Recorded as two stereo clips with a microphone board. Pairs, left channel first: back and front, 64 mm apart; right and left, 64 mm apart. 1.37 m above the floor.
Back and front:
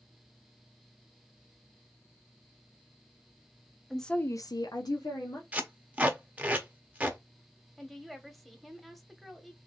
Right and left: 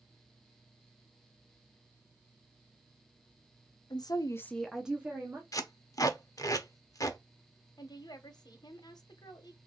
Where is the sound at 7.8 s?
90° right, 1.0 m.